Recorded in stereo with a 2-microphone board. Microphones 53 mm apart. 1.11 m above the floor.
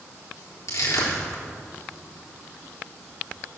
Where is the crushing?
80° left, 3.5 m.